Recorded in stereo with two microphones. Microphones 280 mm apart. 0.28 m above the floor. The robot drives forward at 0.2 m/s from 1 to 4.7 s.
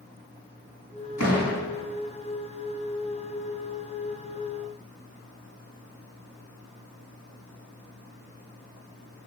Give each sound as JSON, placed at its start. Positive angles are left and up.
{"t": 1.2, "sound": "a door slam", "side_deg": 65, "distance_m": 2.0}